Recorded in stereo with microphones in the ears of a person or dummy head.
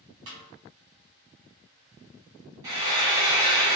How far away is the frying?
About 1.9 m.